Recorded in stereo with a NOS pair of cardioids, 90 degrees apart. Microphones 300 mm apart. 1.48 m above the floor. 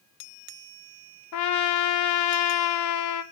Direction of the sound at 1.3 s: 70° left.